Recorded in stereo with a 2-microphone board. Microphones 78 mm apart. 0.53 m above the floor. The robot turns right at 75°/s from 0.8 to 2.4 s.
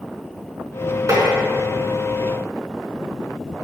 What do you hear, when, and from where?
1.1 s tapping: 45° right (ahead or behind), 4.5 m; by 1.2 s 35° right (ahead or behind), 4.5 m